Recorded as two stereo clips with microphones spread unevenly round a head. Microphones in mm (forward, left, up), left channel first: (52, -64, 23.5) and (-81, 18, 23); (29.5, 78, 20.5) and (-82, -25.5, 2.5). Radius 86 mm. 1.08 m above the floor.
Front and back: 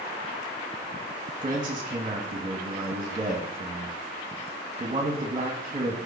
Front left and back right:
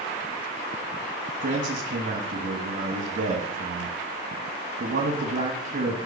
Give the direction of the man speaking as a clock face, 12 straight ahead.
5 o'clock.